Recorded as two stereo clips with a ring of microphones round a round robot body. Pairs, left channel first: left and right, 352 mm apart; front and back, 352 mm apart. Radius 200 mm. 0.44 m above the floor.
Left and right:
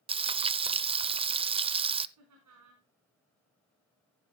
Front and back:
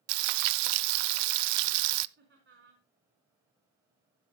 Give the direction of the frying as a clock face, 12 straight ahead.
6 o'clock.